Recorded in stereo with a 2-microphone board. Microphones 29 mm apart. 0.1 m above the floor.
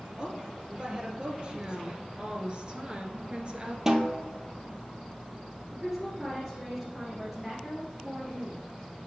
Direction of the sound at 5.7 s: 10° right (ahead or behind).